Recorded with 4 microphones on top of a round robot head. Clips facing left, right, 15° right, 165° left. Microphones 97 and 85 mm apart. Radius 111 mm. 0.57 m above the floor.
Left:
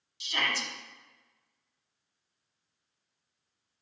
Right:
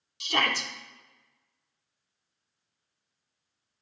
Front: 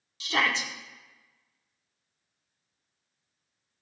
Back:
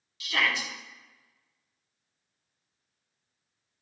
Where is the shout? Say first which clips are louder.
Right 5 dB, front 2 dB; 70° right, 1.6 m.